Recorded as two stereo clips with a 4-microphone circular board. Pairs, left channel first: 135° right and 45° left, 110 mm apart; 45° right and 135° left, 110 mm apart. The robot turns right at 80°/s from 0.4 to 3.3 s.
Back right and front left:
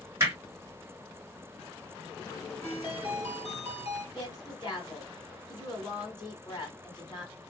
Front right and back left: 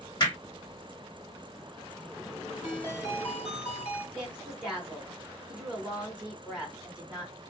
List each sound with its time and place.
0.2 s hammering: 10° right, 2.0 m
2.6 s a ringtone: 160° left, 1.7 m; by 4.0 s 145° right, 1.7 m
4.2 s a woman speaking: 145° right, 1.9 m